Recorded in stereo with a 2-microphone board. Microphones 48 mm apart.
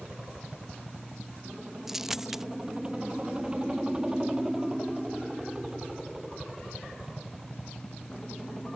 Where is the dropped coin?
5° right (ahead or behind).